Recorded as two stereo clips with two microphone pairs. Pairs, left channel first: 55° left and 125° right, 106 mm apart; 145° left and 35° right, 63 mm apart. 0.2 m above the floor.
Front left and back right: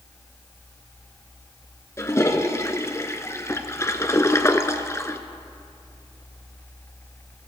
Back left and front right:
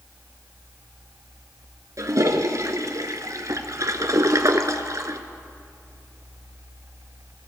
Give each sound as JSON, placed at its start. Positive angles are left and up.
{"t": 2.0, "sound": "a toilet flushing", "azimuth_deg": -5, "distance_m": 0.9}